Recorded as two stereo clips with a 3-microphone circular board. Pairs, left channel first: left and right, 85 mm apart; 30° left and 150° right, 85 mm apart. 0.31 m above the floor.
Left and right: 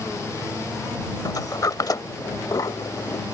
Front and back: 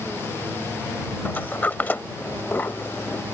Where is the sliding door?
90° left.